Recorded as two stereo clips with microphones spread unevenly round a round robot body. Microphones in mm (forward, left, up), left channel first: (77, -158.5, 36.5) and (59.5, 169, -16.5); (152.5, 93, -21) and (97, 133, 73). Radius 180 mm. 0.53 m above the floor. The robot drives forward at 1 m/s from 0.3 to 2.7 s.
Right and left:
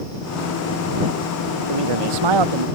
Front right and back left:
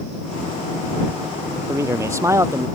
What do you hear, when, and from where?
1.7 s a man speaking: 100° left; by 2.7 s 105° left